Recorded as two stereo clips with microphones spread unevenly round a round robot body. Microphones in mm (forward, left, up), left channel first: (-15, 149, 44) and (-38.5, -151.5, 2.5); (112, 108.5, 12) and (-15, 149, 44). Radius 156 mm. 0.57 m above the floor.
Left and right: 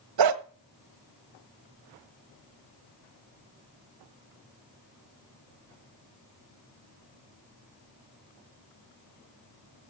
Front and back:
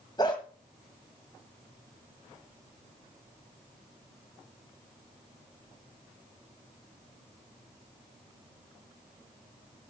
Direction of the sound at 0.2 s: 95° right.